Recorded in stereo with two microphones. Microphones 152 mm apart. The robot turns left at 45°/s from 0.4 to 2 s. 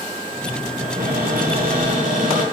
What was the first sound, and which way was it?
A cupboard door, 65° right.